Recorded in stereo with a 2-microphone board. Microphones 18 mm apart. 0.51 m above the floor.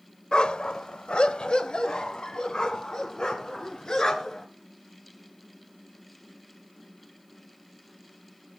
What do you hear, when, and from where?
0.3 s a dog barking: 60° left (ahead or behind), 0.8 m; by 4.5 s 40° left (ahead or behind), 3.5 m